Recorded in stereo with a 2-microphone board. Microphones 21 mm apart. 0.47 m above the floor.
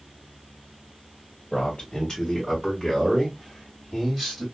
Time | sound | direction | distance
1.5 | a man speaking | 30° left (ahead or behind) | 1.4 m